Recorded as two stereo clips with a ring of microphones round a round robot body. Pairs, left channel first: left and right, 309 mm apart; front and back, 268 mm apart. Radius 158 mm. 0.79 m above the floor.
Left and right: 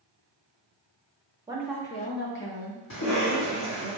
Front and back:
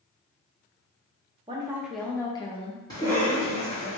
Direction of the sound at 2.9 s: 75° left.